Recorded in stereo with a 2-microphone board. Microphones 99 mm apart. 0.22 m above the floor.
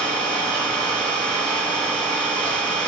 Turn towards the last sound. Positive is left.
turn(degrees=15)  # may be behind; listen again after turning